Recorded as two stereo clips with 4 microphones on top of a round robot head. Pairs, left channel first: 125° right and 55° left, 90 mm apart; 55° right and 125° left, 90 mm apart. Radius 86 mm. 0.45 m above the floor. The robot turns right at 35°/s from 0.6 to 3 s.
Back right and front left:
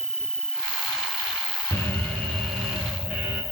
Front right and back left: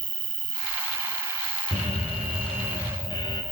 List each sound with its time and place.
0.0 s an insect: 140° left, 1.0 m; by 3.5 s 135° right, 1.0 m
1.7 s an alarm: 65° right, 7 m; by 3.4 s 20° right, 7 m